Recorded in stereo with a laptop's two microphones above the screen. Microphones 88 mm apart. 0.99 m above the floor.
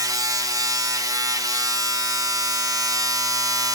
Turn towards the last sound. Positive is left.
turn(degrees=-45)  # may be behind; listen again after turning